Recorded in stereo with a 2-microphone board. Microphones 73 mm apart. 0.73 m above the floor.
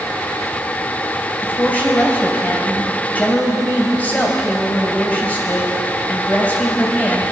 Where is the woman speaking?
25° left (ahead or behind), 3.5 m.